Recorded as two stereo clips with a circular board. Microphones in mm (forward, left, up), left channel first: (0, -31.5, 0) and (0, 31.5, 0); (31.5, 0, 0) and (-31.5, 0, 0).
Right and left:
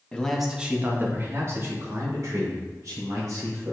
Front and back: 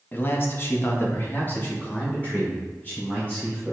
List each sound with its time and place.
0.1 s a man speaking: 30° right, 0.6 m; by 3.7 s 70° left, 2.5 m